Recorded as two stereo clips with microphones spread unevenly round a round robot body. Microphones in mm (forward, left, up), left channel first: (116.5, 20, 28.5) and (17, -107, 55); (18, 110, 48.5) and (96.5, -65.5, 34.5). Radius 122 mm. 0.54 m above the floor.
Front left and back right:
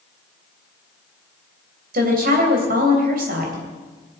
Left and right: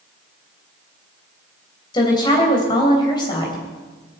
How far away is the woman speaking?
About 3 m.